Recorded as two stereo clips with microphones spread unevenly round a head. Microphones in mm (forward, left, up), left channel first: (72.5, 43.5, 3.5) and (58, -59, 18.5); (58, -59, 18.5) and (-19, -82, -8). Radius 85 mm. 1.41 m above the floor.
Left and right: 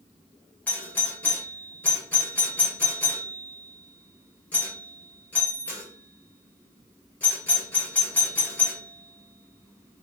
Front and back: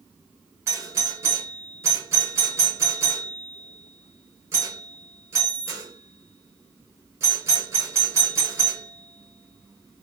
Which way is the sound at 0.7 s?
155° left.